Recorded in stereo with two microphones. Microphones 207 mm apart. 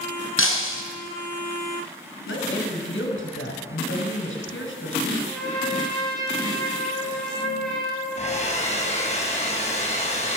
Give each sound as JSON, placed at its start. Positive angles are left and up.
{"t": 0.4, "sound": "breaking glass", "side_deg": 85, "distance_m": 4.0}
{"t": 2.3, "sound": "a woman speaking", "side_deg": 70, "distance_m": 6.0}
{"t": 5.2, "sound": "a trumpet", "side_deg": 0, "distance_m": 9.5}
{"t": 8.2, "sound": "a hair dryer", "side_deg": 30, "distance_m": 5.5}